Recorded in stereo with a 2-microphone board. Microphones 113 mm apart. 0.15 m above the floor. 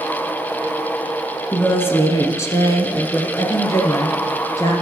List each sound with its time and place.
1.5 s a woman speaking: 20° left (ahead or behind), 1.1 m; by 4.7 s 30° left (ahead or behind), 2.5 m